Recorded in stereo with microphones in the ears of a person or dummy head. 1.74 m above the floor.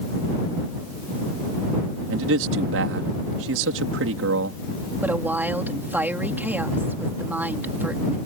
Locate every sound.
2.1 s a man speaking: 75° right (ahead or behind)
5.0 s a woman speaking: 10° right (ahead or behind)